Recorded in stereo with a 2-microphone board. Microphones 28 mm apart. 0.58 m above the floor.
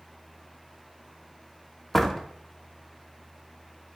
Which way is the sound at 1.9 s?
5° left (ahead or behind).